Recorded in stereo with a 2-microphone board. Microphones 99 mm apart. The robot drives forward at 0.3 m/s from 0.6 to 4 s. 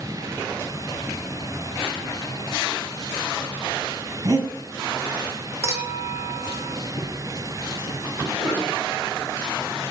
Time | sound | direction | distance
4.2 | breathing | 35° right (ahead or behind) | 1.9 m
5.6 | a clink | 30° right (ahead or behind) | 1.1 m
7.0 | footsteps | 60° left (ahead or behind) | 3.5 m
8.4 | a cough | 15° right (ahead or behind) | 4 m